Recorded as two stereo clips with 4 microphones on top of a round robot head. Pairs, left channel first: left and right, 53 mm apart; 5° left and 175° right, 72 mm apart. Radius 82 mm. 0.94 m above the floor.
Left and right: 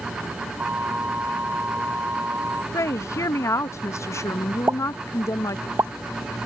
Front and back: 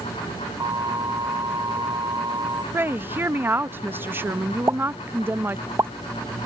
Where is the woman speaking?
125° left.